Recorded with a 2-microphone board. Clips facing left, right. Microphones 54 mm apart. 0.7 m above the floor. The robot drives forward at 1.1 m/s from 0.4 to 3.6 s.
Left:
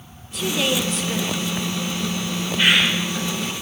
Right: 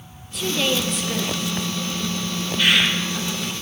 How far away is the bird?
About 3 m.